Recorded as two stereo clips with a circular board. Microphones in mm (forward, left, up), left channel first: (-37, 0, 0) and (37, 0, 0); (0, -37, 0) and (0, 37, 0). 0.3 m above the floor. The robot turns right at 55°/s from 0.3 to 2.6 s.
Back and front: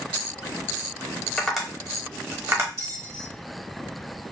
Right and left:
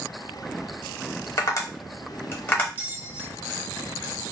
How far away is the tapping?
About 0.8 m.